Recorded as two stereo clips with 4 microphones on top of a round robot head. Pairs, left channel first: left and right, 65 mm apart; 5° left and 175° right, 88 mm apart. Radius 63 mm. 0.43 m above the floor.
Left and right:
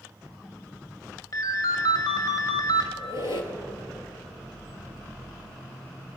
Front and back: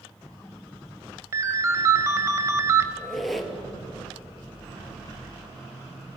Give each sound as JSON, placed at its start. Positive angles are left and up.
{"t": 1.3, "sound": "a ringtone", "azimuth_deg": 130, "distance_m": 1.5}
{"t": 3.0, "sound": "a squeak", "azimuth_deg": 90, "distance_m": 2.5}